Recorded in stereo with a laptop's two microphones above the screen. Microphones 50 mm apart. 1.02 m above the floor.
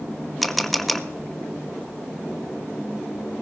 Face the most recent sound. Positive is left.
turn(degrees=5)  # may be behind; listen again after turning